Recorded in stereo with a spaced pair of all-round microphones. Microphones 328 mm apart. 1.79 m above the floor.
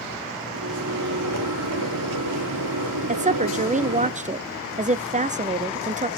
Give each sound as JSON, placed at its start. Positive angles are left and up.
{"t": 0.5, "sound": "a microwave", "side_deg": -70, "distance_m": 3.5}
{"t": 3.1, "sound": "a woman speaking", "side_deg": -20, "distance_m": 0.7}